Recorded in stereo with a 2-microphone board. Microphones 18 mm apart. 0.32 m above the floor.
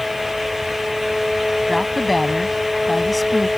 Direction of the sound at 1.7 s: 5° right (ahead or behind).